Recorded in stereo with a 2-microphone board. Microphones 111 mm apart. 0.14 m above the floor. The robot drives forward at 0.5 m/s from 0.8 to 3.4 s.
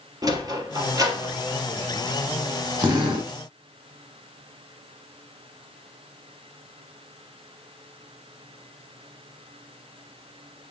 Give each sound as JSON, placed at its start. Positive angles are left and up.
{"t": 0.2, "sound": "a sliding door", "side_deg": -35, "distance_m": 1.8}
{"t": 2.8, "sound": "a drill", "side_deg": -40, "distance_m": 3.5}